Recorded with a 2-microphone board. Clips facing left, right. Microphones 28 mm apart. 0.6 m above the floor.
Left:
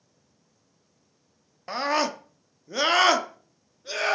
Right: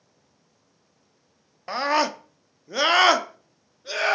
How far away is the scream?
About 0.6 m.